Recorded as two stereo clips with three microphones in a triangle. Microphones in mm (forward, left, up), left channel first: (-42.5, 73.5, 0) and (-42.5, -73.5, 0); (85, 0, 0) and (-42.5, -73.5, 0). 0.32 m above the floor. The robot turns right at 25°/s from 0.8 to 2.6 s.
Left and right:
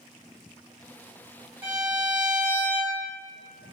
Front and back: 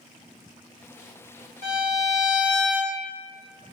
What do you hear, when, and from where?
1.6 s a violin: 135° right, 2.0 m; by 3.0 s 110° right, 2.0 m